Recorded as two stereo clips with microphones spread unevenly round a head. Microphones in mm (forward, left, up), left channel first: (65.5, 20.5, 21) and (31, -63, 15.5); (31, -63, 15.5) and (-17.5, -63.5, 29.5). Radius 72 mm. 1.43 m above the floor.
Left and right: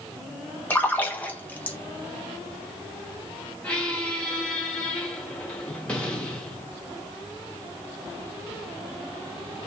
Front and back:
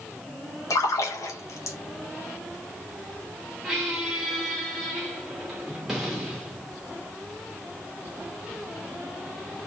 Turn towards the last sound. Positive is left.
turn(degrees=130)